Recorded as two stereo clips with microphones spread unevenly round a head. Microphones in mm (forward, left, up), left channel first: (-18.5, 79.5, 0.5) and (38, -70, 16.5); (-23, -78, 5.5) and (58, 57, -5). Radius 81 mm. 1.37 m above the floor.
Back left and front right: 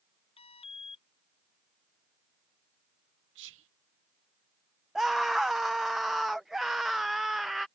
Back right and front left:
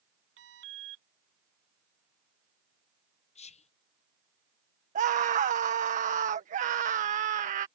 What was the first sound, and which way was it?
An alarm, 55° left.